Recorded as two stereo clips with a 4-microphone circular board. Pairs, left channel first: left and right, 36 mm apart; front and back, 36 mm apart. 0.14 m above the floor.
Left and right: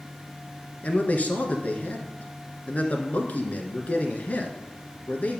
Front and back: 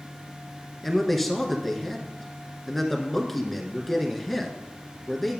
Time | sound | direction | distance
0.8 | a man speaking | 85° left | 1.4 m